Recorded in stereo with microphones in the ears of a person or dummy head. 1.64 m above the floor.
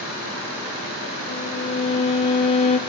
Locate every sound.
1.3 s a violin: 30° left (ahead or behind), 1.2 m